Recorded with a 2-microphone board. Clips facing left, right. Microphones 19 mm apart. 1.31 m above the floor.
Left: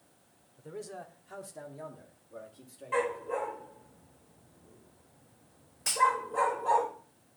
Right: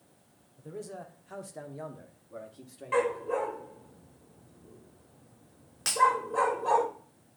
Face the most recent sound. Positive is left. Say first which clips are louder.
# right 2 dB
turn(degrees=-70)  # may be behind; listen again after turning